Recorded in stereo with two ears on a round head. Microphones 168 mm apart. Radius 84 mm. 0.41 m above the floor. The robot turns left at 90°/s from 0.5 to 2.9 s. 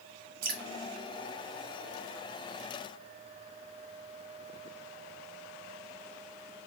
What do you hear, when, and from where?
0.4 s dripping: 50° right (ahead or behind), 0.7 m